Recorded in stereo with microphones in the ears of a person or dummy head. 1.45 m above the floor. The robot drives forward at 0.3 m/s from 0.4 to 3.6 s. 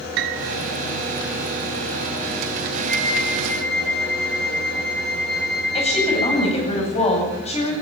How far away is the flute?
About 7.5 m.